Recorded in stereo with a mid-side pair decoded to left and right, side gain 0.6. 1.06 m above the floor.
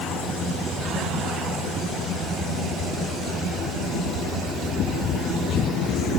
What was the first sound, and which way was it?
Only background noise.